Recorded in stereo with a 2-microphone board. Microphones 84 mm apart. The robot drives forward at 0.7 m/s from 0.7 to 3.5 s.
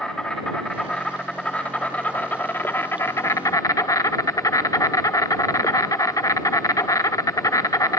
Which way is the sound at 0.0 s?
10° left (ahead or behind).